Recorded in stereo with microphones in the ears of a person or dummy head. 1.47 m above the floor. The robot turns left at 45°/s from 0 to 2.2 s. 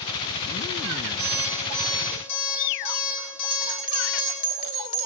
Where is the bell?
45° left (ahead or behind), 2.5 m.